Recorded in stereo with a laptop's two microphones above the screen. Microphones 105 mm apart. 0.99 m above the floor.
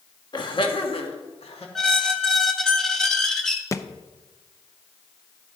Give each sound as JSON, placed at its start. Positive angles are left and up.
{"t": 0.3, "sound": "laughter", "side_deg": 45, "distance_m": 1.5}
{"t": 1.8, "sound": "a squeak", "side_deg": 5, "distance_m": 1.0}
{"t": 3.7, "sound": "a thud", "side_deg": 30, "distance_m": 0.6}